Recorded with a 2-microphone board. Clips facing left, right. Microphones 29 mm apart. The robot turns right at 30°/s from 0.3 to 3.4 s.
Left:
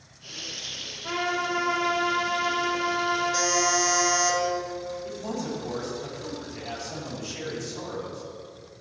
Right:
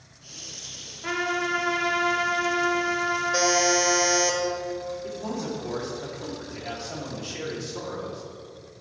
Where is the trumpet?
100° right, 2.5 m; by 4.3 s 30° right, 2.5 m.